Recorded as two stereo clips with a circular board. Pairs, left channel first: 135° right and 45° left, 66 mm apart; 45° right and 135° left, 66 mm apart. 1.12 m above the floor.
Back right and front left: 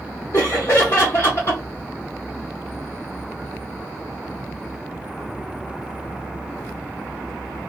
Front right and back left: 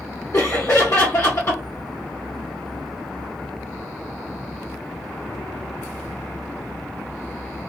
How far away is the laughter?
About 1.0 m.